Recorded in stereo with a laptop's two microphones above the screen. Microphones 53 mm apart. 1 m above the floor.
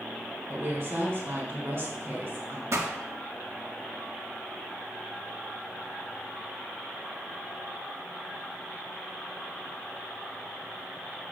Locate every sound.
0.5 s a woman speaking: 50° right (ahead or behind), 3 m
2.7 s a pop: 65° right (ahead or behind), 1.5 m